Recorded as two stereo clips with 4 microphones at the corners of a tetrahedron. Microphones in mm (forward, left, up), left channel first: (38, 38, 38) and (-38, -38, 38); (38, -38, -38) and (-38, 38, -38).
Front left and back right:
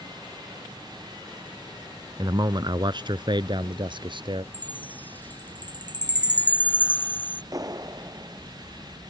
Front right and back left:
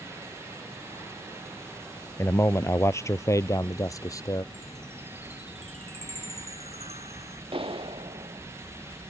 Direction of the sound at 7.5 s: 170° left.